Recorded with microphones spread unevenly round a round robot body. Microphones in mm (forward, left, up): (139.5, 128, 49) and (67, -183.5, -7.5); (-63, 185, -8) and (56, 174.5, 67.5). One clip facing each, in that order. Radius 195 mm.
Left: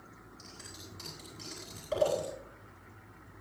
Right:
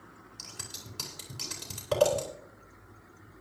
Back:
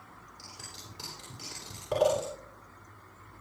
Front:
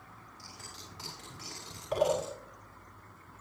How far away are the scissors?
About 9.5 m.